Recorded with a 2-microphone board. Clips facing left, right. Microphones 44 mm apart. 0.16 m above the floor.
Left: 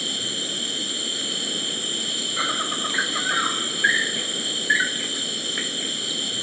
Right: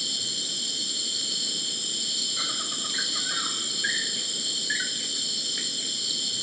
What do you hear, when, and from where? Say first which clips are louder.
0.0 s an insect: left 5 dB; 40° left (ahead or behind)